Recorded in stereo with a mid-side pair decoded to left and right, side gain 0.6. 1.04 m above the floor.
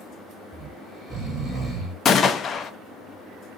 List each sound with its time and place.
0.5 s snoring: 20° right, 2.5 m
2.0 s a gunshot: 35° left, 0.6 m